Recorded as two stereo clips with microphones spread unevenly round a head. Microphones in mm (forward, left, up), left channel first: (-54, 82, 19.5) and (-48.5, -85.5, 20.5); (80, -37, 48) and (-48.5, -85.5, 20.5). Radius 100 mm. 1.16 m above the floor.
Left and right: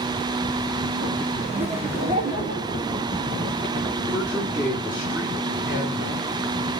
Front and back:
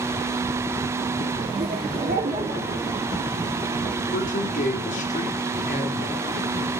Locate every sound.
1.6 s laughter: 130° right, 2.5 m; by 2.9 s 135° right, 4 m
4.1 s a man speaking: 5° right, 2.5 m